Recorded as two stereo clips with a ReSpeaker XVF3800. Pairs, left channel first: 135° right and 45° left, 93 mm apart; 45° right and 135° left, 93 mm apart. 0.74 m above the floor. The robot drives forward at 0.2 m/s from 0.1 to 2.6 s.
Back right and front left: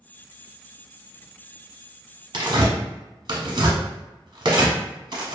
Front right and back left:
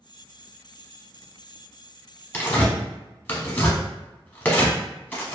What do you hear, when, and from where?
2.3 s tearing paper: 20° left, 0.8 m